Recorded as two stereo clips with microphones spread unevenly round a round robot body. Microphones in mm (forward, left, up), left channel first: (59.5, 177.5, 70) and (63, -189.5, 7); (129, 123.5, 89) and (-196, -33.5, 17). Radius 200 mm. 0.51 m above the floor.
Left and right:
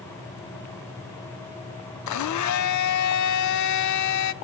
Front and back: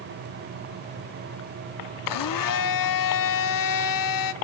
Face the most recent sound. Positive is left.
turn(degrees=50)